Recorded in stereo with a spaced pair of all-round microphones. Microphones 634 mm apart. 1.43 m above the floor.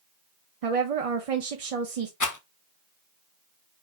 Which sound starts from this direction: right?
A woman speaking, at 0.6 s.